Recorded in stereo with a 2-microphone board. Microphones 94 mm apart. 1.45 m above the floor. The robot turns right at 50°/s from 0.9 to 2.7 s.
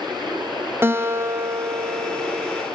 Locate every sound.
0.8 s a guitar: 25° right (ahead or behind), 0.9 m; by 2.6 s 15° right (ahead or behind), 0.9 m